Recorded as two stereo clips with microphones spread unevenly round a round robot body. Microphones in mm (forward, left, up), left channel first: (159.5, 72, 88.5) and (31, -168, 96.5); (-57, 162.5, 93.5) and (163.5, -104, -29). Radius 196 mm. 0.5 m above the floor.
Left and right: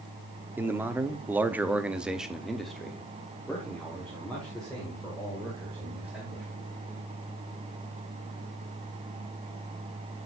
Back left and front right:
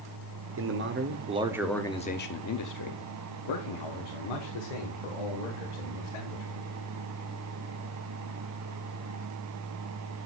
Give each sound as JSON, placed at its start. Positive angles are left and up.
{"t": 0.6, "sound": "a man speaking", "azimuth_deg": -35, "distance_m": 1.1}